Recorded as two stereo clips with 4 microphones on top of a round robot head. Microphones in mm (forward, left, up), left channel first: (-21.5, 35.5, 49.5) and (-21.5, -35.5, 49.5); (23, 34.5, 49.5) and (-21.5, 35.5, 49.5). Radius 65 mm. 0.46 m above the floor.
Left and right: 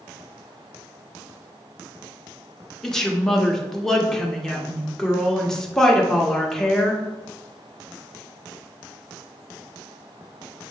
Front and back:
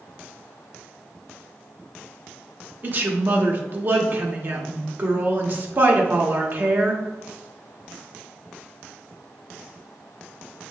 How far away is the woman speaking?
About 0.9 m.